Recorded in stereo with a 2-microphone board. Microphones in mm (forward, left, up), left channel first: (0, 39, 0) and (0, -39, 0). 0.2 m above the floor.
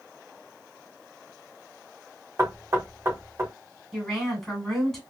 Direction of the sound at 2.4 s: 40° right (ahead or behind).